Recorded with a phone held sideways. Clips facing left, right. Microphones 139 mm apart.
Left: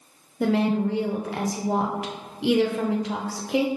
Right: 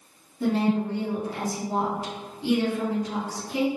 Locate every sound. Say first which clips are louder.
0.4 s a woman speaking: left 2 dB; 85° left, 0.6 m